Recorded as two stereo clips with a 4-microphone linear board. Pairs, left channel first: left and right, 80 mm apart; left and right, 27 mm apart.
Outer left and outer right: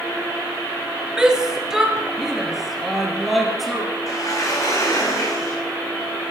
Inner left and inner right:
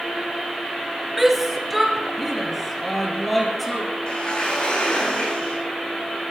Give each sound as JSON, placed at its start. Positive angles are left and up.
{"t": 1.2, "sound": "a shout", "side_deg": -10, "distance_m": 1.7}
{"t": 4.1, "sound": "a sliding door", "side_deg": 45, "distance_m": 4.5}